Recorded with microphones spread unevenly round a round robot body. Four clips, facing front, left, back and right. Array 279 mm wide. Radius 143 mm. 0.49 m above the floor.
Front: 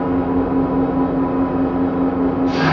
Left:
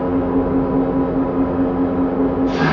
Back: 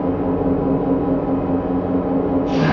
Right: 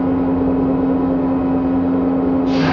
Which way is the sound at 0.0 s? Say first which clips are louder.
Right 1 dB, front 1 dB; 155° right.